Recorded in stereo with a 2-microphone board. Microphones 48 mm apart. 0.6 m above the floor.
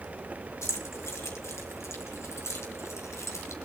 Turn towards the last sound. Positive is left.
turn(degrees=80)